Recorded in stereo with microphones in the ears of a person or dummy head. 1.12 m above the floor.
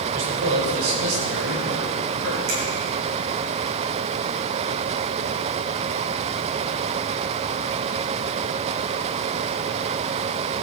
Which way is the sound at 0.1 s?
80° right.